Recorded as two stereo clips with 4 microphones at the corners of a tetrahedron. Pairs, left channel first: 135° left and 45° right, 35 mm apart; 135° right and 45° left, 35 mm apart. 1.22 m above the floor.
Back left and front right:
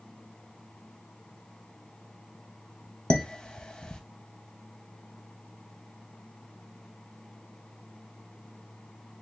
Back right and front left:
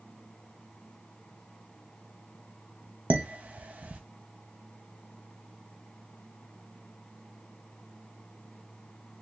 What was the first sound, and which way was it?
Dishes clattering, 75° left.